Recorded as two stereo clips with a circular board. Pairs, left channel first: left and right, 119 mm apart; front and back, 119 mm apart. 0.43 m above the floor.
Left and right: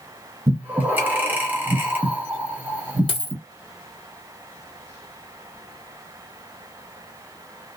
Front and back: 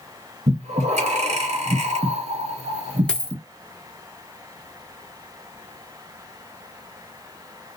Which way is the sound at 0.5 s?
165° right.